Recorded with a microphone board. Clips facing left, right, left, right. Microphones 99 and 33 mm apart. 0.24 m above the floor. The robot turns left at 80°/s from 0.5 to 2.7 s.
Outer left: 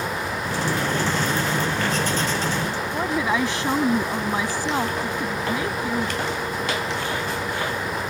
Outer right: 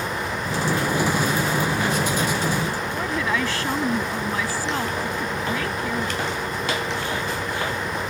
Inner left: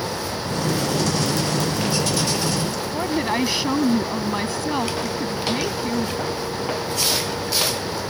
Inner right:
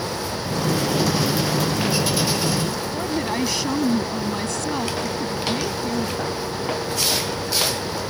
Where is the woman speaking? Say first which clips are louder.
Outer left 4 dB, inner left 4 dB; 20° left (ahead or behind).